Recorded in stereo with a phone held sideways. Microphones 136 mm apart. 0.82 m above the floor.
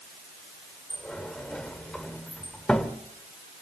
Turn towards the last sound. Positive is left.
turn(degrees=5)  # may be behind; listen again after turning